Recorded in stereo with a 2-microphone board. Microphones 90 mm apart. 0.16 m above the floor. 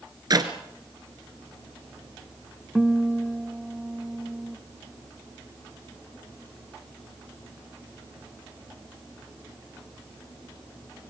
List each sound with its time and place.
0.3 s a clap: 50° right (ahead or behind), 1.7 m
2.8 s a guitar: 5° right (ahead or behind), 0.8 m